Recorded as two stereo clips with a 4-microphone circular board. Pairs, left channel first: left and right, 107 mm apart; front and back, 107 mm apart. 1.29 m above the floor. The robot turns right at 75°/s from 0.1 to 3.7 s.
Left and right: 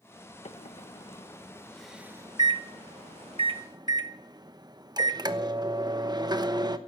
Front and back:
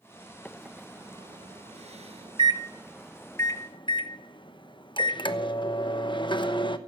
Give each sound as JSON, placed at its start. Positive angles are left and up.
{"t": 0.5, "sound": "a microwave", "azimuth_deg": 75, "distance_m": 0.9}